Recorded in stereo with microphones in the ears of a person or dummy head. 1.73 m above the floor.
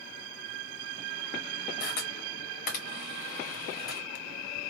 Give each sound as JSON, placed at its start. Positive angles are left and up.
{"t": 1.8, "sound": "a camera shutter", "side_deg": 35, "distance_m": 1.2}